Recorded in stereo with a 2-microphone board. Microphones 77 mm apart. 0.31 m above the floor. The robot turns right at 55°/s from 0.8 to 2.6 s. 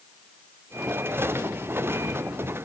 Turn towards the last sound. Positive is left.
No sound to turn to.